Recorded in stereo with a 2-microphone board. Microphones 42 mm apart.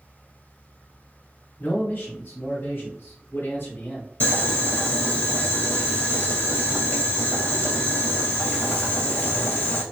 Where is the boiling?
50° left (ahead or behind), 2.5 m.